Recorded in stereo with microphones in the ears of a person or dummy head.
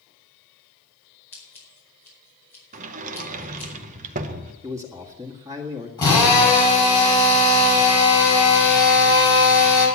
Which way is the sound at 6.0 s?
15° left (ahead or behind).